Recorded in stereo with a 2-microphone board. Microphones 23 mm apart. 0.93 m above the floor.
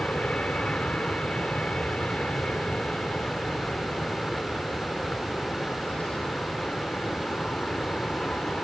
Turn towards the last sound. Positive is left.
turn(degrees=65)  # may be behind; listen again after turning